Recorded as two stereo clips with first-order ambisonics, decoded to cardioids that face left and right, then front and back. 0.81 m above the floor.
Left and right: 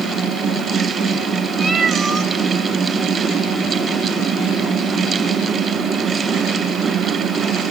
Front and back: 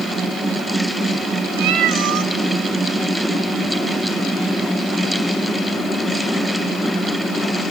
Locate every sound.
1.6 s a cat meowing: 175° right, 1.8 m